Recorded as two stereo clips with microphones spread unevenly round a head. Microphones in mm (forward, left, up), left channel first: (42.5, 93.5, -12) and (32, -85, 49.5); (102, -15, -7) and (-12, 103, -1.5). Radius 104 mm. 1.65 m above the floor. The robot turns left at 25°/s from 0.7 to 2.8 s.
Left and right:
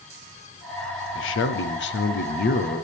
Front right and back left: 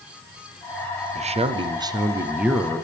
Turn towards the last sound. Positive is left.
turn(degrees=45)